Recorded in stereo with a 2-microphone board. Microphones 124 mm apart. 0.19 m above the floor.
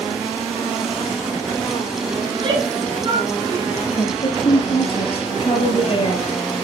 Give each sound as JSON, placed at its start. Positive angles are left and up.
{"t": 2.2, "sound": "a shout", "side_deg": -40, "distance_m": 7.5}
{"t": 3.9, "sound": "a woman speaking", "side_deg": 45, "distance_m": 5.0}